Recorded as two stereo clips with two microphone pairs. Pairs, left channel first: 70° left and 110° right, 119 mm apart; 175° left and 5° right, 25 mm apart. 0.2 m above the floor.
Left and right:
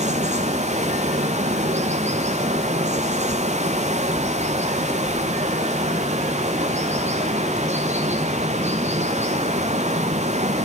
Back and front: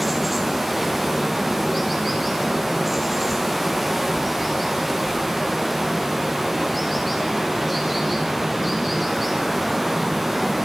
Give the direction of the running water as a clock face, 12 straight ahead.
3 o'clock.